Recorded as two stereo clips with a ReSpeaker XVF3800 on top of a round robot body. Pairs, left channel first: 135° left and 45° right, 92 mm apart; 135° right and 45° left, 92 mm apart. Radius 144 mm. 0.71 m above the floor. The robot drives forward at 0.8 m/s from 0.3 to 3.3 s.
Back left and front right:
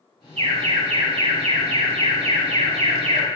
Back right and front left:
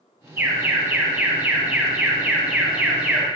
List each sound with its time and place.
0.4 s an alarm: 25° right, 9.5 m; by 3.3 s 35° right, 7 m